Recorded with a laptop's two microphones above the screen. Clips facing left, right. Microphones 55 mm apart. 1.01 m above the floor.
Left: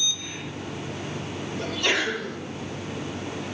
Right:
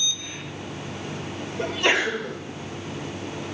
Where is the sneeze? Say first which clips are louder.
Right 3 dB; 25° right (ahead or behind), 1.1 m.